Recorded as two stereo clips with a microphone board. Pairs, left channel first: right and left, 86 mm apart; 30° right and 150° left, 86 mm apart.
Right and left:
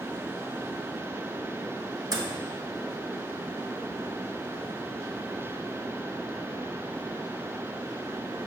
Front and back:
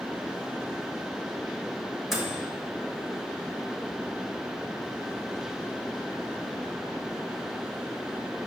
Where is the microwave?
60° left, 1.2 m.